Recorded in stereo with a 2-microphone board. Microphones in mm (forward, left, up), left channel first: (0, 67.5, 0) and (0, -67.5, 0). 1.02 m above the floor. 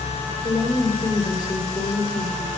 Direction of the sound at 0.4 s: 30° left (ahead or behind).